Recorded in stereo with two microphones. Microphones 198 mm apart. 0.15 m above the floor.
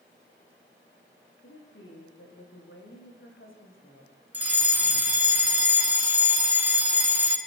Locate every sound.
1.4 s a woman speaking: 85° left, 9.5 m
4.3 s a fire alarm: 10° right (ahead or behind), 3 m